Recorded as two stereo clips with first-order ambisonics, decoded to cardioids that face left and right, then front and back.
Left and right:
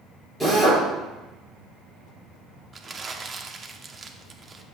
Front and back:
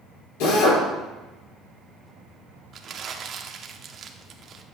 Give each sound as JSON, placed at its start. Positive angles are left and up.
{"t": 0.4, "sound": "a drill", "azimuth_deg": -5, "distance_m": 3.5}
{"t": 2.7, "sound": "crumpling", "azimuth_deg": -145, "distance_m": 0.7}